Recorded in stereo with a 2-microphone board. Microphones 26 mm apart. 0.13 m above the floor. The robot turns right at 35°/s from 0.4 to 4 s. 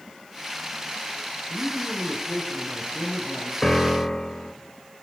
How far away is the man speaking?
About 2.5 m.